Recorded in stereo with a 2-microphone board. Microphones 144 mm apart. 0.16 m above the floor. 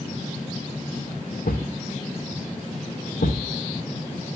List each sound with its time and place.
1.4 s a thud: 90° left, 3 m